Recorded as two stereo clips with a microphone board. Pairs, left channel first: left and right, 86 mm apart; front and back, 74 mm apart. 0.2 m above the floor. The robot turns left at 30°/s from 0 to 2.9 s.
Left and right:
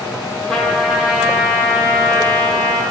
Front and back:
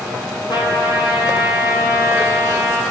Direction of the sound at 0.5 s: 5° left.